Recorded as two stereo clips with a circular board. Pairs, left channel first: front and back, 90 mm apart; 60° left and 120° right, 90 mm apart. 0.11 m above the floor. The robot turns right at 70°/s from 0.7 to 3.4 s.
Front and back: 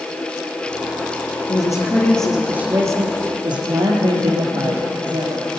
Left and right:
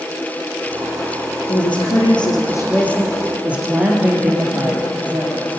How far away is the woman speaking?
About 3 m.